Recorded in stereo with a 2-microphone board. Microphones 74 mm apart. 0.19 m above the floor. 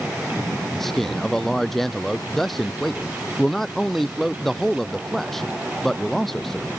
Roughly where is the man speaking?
Centre.